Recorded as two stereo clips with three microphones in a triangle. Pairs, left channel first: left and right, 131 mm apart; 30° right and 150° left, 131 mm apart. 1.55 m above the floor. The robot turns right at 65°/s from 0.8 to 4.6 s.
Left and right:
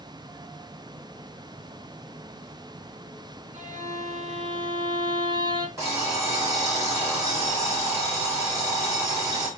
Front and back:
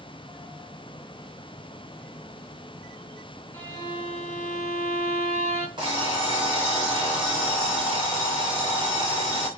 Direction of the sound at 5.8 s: 155° right.